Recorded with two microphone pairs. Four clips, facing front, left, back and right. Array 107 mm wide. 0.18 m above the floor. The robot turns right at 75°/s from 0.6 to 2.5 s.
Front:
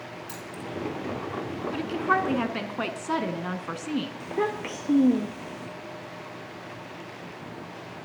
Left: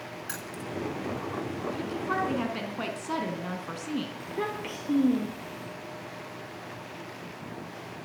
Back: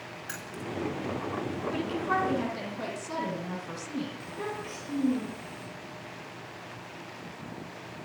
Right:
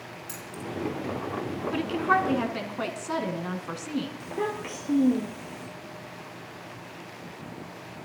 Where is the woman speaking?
70° right, 2 m; by 4.1 s 15° right, 2 m.